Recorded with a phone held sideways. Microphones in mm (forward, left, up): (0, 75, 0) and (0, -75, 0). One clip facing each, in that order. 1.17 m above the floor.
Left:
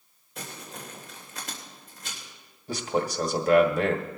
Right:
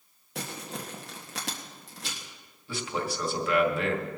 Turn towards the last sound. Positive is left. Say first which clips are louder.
# left 5 dB
turn(degrees=40)  # may be behind; listen again after turning